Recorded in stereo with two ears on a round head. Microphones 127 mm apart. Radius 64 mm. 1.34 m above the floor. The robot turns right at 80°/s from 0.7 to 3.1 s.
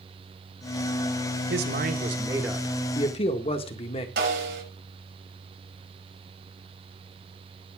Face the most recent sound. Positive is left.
turn(degrees=-90)